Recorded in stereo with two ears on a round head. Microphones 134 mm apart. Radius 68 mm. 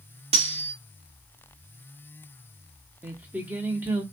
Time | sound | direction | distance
0.3 | cutlery clinking | 40° right (ahead or behind) | 1.7 m
3.0 | singing | 10° right (ahead or behind) | 1.0 m